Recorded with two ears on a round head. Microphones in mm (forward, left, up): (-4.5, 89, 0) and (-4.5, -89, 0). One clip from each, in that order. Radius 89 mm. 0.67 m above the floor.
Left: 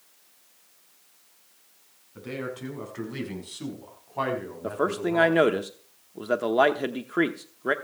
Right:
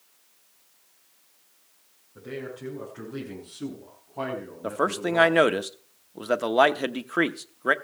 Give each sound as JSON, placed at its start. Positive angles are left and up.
{"t": 2.1, "sound": "a man speaking", "side_deg": 50, "distance_m": 6.5}
{"t": 4.6, "sound": "a man speaking", "side_deg": -30, "distance_m": 0.9}